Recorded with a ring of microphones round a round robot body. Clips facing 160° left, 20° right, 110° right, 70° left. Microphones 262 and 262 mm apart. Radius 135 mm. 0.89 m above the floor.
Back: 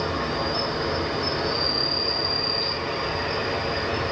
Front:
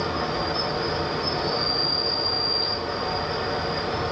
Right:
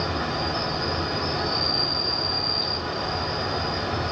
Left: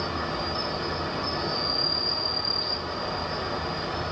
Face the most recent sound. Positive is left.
turn(degrees=-135)